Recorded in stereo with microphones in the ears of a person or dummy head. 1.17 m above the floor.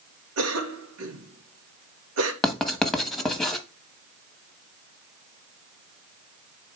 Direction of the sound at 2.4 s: 15° left (ahead or behind).